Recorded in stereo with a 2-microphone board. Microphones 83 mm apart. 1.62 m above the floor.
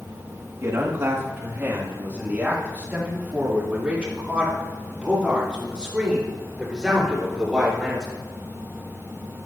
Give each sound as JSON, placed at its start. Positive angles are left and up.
{"t": 0.6, "sound": "a man speaking", "side_deg": -35, "distance_m": 2.5}